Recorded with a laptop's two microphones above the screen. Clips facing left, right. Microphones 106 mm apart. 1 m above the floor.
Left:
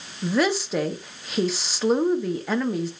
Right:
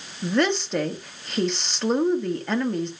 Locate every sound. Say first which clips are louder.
0.2 s a woman speaking: even; 5° left (ahead or behind), 0.8 m